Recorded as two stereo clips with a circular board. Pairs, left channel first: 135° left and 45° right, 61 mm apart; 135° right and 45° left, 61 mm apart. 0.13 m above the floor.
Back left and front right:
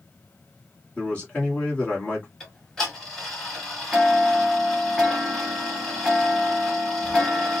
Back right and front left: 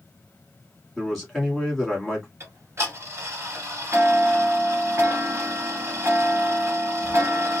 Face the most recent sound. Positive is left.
turn(degrees=55)